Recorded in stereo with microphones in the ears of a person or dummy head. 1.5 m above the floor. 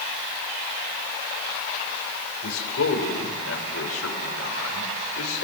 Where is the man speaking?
85° left, 7 m.